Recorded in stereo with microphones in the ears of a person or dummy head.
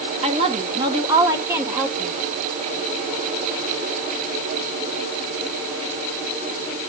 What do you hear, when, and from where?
0.2 s a woman speaking: 40° right (ahead or behind), 2.5 m; by 2.1 s 10° right (ahead or behind), 2 m